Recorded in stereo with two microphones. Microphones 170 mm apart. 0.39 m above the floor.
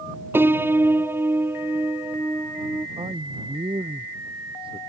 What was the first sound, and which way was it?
A piano, 15° right (ahead or behind).